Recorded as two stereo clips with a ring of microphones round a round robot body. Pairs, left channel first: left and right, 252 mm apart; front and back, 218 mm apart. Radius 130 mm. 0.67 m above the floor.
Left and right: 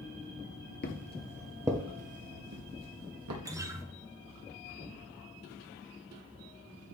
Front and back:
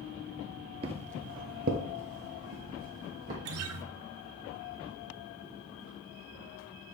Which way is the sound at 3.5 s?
170° right.